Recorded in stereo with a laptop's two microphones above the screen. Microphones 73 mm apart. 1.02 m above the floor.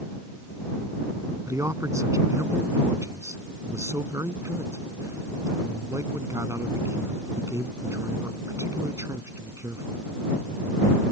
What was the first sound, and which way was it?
A man speaking, 50° right (ahead or behind).